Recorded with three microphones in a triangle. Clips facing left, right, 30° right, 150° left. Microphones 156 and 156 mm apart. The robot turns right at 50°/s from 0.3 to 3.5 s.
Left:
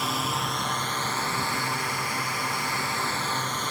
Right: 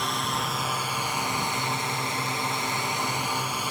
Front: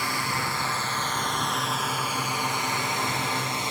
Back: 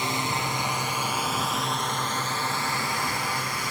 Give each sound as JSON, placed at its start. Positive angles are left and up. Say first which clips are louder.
{"t": 0.0, "sound": "a drone", "louder": "even, back 2 dB", "azimuth_deg": 175}